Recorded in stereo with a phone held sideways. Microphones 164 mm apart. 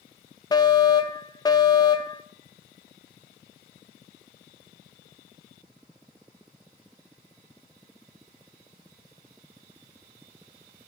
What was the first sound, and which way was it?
A fire alarm, 25° left (ahead or behind).